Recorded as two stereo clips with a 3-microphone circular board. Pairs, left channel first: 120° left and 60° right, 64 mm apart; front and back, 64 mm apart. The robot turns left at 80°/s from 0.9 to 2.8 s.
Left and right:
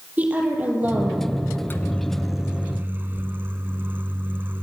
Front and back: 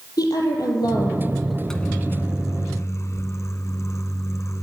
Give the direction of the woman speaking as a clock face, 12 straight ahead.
12 o'clock.